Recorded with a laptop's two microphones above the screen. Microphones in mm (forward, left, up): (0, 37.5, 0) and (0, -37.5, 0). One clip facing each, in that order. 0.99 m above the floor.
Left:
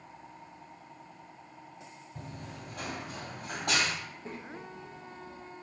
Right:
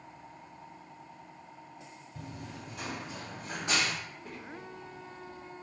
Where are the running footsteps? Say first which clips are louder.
Right 1 dB; 30° left (ahead or behind), 1.4 m; by 3.9 s 60° left (ahead or behind), 2 m.